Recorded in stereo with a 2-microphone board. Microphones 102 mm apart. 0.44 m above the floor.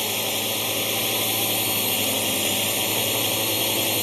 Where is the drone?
Centre (ahead or behind).